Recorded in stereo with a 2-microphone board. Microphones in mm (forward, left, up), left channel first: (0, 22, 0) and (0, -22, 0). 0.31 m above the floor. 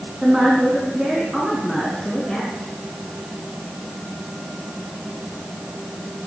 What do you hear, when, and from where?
0.2 s a woman speaking: 20° right (ahead or behind), 2.5 m; by 2.5 s centre (ahead or behind), 3.5 m